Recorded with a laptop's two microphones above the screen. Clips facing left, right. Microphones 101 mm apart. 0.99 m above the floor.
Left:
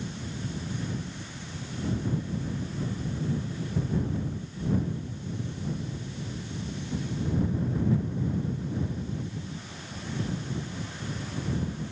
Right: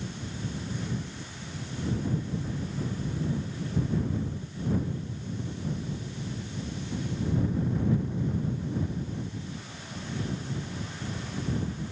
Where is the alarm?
I don't hear an alarm.